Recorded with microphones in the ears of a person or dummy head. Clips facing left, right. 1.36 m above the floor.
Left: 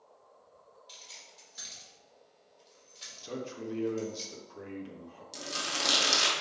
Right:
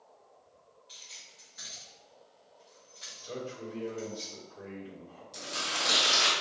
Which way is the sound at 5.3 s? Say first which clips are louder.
Even; 75° left (ahead or behind).